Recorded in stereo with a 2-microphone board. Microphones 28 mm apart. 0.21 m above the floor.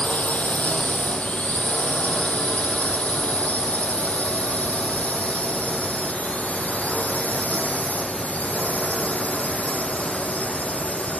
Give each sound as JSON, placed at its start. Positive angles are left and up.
{"t": 0.0, "sound": "a drone", "side_deg": 70}